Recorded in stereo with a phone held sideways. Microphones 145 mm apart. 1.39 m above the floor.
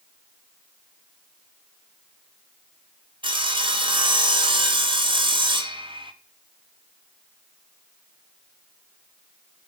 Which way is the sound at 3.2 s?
35° right (ahead or behind).